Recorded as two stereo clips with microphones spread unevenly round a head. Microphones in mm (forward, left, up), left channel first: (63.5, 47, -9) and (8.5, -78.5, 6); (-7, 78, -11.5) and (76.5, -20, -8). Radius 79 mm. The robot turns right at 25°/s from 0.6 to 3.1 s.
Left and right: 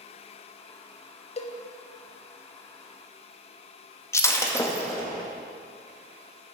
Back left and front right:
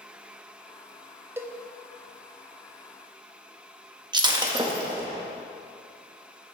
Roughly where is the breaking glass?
Ahead.